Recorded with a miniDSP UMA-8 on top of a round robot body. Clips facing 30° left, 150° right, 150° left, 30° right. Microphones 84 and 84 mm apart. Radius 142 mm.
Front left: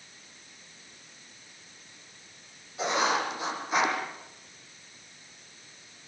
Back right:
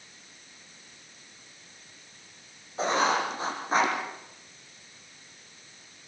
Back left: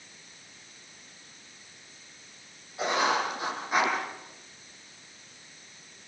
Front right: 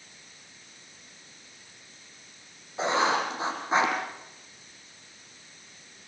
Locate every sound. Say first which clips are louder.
2.8 s writing: back right 2 dB, front right 1 dB; 95° right, 8.5 m